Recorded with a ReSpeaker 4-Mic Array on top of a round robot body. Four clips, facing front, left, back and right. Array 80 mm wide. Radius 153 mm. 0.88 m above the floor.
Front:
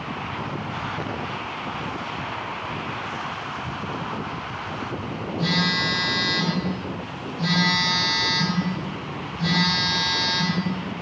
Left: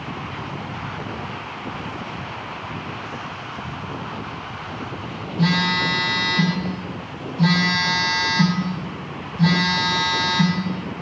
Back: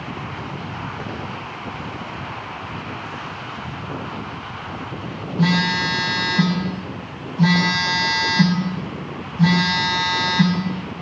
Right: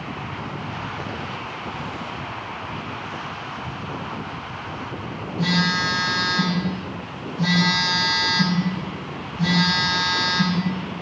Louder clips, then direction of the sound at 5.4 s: Left 2 dB, back 5 dB; 165° left.